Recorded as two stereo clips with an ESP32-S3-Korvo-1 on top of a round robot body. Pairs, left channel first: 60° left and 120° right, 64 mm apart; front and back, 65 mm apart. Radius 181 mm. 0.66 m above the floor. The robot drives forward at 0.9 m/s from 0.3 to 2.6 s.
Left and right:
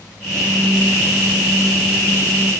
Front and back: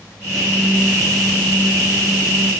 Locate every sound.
Only background noise.